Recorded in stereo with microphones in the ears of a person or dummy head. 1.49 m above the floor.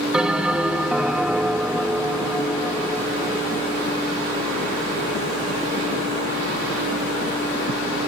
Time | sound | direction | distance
0.1 | a bell | centre (ahead or behind) | ?